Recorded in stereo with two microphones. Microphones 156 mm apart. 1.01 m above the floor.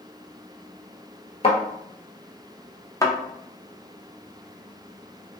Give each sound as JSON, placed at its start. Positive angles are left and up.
{"t": 1.4, "sound": "a thud", "side_deg": 40, "distance_m": 1.2}
{"t": 3.0, "sound": "a thud", "side_deg": 20, "distance_m": 0.6}